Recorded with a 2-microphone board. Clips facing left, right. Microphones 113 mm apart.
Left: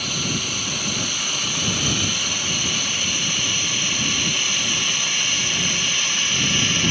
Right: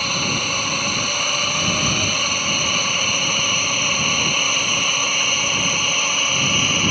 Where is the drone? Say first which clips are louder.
Right 3 dB; 55° right (ahead or behind); by 6.9 s 45° right (ahead or behind).